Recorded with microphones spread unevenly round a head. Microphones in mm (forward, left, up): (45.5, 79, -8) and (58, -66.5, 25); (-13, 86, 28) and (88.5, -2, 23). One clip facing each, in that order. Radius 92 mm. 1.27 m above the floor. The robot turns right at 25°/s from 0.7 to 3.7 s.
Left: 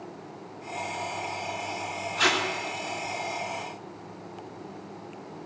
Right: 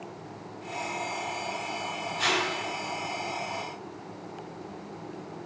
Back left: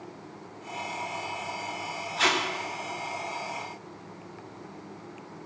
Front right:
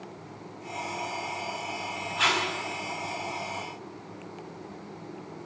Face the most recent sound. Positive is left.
turn(degrees=125)